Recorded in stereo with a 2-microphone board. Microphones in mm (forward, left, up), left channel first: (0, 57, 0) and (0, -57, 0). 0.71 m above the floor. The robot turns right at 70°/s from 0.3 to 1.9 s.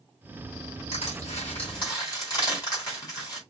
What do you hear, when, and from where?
0.9 s crushing: 75° left (ahead or behind), 4 m; by 3.4 s 35° left (ahead or behind), 4 m